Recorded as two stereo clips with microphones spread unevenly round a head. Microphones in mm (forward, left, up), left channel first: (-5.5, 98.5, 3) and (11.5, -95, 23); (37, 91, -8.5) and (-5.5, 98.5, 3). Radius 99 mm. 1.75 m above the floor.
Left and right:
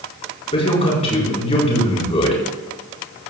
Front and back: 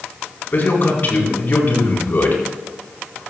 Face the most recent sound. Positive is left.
turn(degrees=35)